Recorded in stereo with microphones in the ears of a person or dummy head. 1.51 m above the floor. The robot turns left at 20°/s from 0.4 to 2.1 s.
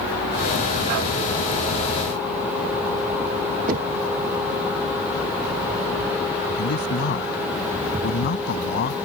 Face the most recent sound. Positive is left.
turn(degrees=50)  # may be behind; listen again after turning